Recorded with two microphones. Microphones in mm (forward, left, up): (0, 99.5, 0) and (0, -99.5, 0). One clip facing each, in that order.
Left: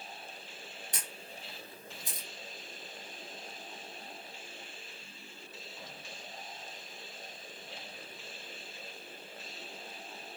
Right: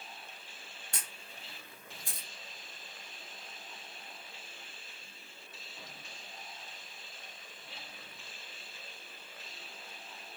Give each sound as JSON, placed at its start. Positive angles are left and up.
{"t": 0.9, "sound": "a camera shutter", "side_deg": 20, "distance_m": 1.6}